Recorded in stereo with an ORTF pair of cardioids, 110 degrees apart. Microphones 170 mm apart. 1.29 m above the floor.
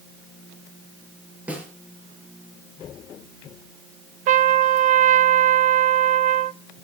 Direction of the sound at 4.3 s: 45° right.